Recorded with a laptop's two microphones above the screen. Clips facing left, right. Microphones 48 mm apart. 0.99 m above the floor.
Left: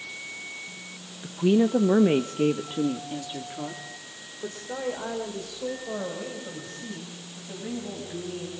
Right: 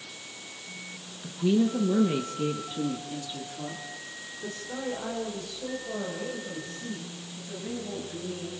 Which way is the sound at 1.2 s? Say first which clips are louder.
Left 3 dB; 20° left (ahead or behind).